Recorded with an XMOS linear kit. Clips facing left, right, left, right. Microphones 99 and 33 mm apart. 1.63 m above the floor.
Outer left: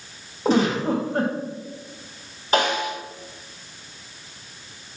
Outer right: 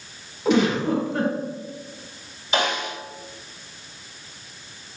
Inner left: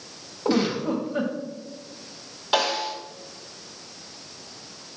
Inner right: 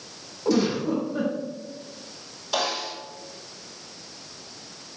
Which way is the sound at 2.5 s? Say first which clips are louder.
Outer left 3 dB, inner left 4 dB; 45° left (ahead or behind).